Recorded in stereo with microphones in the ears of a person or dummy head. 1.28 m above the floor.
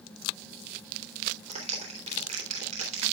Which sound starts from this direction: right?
A clap, at 1.5 s.